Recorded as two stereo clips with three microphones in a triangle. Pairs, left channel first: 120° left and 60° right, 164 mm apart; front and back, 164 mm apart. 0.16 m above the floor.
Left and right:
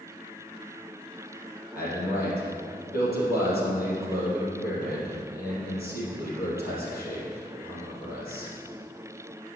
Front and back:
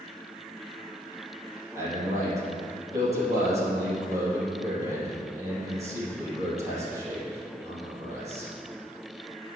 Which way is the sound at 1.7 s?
110° left.